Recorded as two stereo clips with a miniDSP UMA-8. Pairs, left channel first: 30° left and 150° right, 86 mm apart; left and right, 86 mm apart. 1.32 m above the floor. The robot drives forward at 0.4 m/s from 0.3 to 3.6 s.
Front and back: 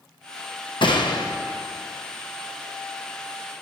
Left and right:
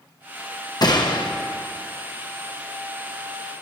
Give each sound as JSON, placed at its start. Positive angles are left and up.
{"t": 0.8, "sound": "a gunshot", "azimuth_deg": 50, "distance_m": 0.8}